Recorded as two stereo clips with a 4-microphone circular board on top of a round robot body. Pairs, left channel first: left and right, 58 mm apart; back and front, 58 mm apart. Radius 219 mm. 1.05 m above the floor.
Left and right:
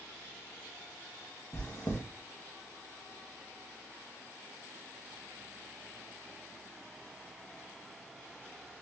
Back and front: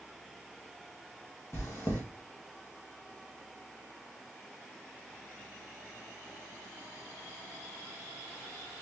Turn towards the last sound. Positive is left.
turn(degrees=135)